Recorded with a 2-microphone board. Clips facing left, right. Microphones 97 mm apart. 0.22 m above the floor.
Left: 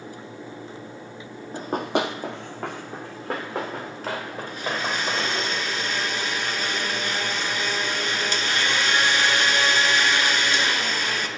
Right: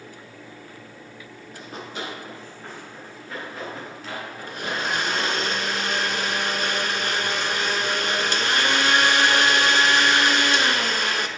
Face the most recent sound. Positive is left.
turn(degrees=-55)  # may be behind; listen again after turning